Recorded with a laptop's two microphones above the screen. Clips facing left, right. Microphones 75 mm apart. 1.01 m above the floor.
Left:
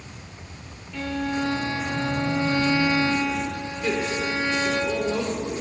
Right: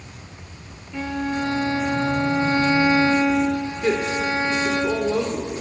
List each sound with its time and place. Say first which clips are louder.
0.9 s a violin: right 2 dB; 25° right (ahead or behind), 1.9 m
3.8 s a woman speaking: right 3 dB; 30° right (ahead or behind), 3.5 m